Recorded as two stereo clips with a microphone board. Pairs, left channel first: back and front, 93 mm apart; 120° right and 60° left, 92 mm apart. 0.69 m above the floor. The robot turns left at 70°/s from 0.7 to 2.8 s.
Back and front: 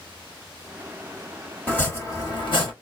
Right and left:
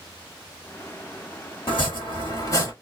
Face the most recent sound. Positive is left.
turn(degrees=170)